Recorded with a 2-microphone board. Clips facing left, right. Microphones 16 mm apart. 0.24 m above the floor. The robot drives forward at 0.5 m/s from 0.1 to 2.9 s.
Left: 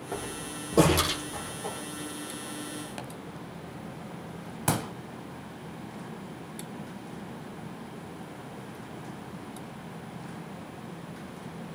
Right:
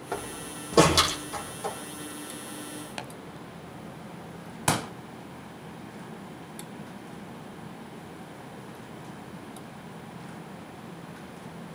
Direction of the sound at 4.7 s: 25° right (ahead or behind).